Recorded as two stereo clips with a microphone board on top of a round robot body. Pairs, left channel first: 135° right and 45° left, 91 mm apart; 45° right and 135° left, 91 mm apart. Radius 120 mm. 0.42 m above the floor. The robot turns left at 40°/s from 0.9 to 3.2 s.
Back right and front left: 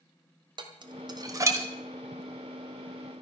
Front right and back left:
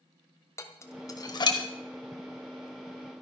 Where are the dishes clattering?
15° left, 1.7 m; by 1.6 s 15° right, 1.7 m.